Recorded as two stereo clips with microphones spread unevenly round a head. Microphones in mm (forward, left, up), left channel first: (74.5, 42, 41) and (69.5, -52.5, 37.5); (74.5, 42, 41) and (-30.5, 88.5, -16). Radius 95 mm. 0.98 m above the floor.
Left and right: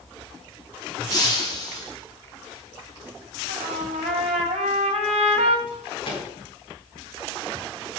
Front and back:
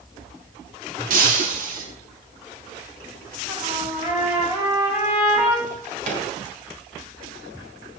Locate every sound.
1.1 s breaking glass: 160° left, 3.5 m
3.5 s a trumpet: 120° right, 3 m
5.7 s a drawer: 145° left, 5 m